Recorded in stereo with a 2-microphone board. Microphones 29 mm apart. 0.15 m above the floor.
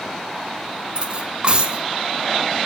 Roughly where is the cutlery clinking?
Right.